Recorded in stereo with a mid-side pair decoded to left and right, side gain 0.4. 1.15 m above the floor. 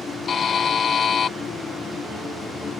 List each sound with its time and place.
0.3 s a buzzer: 55° left